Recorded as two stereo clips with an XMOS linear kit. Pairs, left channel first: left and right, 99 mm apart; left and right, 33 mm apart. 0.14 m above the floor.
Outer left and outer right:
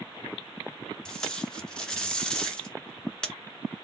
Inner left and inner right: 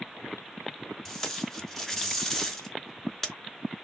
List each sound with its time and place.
1.1 s tape being pulled: 5° left (ahead or behind), 0.9 m